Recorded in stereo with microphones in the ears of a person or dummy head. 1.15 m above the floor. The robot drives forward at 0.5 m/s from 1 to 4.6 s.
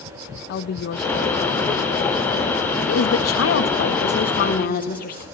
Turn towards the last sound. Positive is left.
turn(degrees=55)  # may be behind; listen again after turning